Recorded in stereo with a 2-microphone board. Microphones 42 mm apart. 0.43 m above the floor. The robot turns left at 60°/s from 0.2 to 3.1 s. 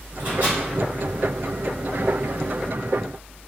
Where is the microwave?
50° right (ahead or behind), 2.0 m; by 0.6 s 60° right (ahead or behind), 2.0 m.